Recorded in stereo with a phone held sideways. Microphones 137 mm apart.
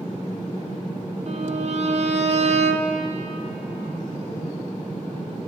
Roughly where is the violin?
Right.